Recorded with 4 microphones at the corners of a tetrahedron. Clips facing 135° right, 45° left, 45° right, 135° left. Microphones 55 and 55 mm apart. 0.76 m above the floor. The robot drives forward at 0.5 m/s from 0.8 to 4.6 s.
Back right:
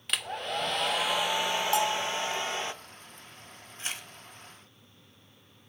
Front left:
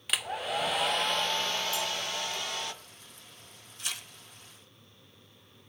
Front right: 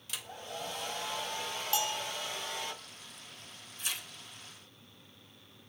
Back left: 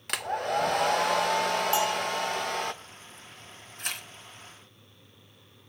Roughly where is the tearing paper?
Behind.